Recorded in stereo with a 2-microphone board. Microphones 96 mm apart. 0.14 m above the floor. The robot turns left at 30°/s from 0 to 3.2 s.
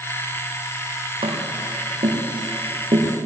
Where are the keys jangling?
I don't hear keys jangling.